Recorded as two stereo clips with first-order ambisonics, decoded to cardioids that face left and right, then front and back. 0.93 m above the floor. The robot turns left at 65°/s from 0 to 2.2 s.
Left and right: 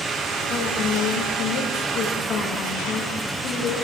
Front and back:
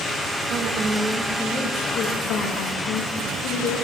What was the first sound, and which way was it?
A woman speaking, 145° left.